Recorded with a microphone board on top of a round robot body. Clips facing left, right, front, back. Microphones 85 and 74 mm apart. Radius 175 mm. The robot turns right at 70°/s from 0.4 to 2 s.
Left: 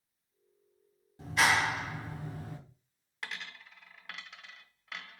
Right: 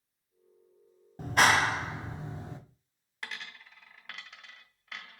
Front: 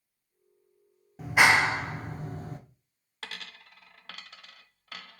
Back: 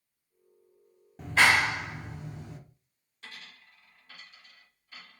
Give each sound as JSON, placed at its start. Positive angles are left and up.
{"t": 1.2, "sound": "a clap", "azimuth_deg": -85, "distance_m": 1.0}
{"t": 3.2, "sound": "a dropped coin", "azimuth_deg": 0, "distance_m": 0.7}